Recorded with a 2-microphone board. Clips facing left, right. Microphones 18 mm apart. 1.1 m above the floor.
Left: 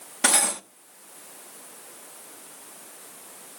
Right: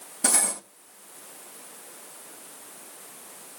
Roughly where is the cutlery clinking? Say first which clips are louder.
Left 4 dB; left.